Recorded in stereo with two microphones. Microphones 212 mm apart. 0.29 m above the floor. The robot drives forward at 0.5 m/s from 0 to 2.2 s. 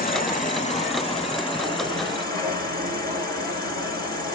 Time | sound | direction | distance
0.0 | an insect | 45° left (ahead or behind) | 0.8 m